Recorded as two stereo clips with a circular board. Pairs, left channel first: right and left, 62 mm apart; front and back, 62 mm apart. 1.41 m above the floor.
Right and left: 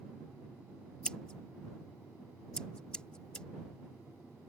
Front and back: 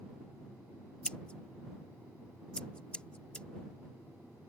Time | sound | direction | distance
1.1 | scissors | 40° right | ?